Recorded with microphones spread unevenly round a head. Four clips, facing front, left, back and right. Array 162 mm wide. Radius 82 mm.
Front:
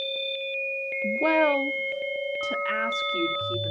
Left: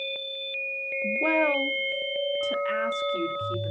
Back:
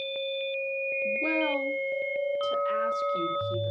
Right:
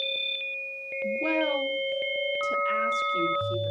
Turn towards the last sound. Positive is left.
turn(degrees=20)